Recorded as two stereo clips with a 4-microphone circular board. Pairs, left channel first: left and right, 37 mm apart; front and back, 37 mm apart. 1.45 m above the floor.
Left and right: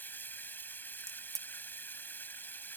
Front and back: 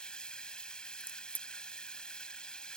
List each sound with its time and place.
0.0 s running water: 65° left
1.0 s a crack: 15° left